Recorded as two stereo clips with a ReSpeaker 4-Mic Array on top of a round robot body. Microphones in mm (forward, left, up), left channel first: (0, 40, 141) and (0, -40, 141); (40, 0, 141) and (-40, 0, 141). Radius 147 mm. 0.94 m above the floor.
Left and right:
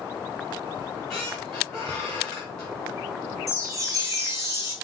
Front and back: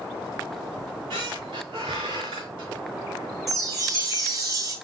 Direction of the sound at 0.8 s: 170° left.